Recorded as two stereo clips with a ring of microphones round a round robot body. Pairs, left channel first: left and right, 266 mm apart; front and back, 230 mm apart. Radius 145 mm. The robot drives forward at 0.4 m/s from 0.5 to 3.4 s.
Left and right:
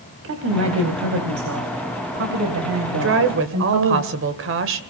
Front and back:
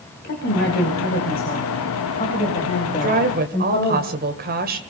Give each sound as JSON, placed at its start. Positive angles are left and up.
{"t": 0.2, "sound": "a woman speaking", "azimuth_deg": -50, "distance_m": 3.5}
{"t": 3.0, "sound": "a woman speaking", "azimuth_deg": -125, "distance_m": 1.8}